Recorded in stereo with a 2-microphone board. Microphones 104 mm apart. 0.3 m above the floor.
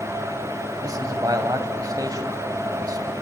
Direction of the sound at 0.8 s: 35° right (ahead or behind).